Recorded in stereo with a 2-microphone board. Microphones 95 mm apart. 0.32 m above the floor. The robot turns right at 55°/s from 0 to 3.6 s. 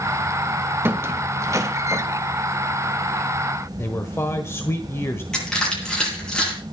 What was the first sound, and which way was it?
A squeak, 25° right (ahead or behind).